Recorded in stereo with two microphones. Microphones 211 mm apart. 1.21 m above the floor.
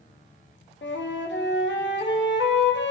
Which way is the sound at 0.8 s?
60° left (ahead or behind).